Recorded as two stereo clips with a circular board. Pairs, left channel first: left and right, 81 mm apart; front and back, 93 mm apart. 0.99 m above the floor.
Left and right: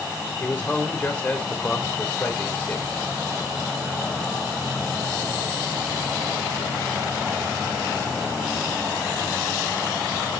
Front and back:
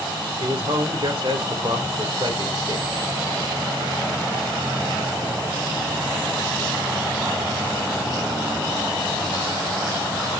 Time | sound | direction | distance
0.4 | a man speaking | 160° left | 2.5 m